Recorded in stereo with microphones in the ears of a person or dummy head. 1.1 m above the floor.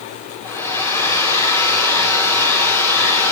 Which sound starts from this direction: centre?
A hair dryer, at 0.4 s.